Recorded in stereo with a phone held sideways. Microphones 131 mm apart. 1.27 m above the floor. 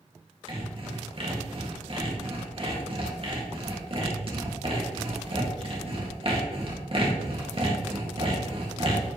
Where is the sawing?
45° right (ahead or behind), 2 m.